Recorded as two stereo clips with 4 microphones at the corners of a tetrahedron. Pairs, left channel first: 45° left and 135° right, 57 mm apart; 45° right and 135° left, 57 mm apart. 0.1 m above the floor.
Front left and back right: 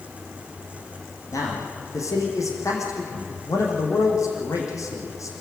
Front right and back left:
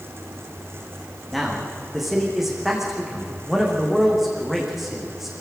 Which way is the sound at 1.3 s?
50° left.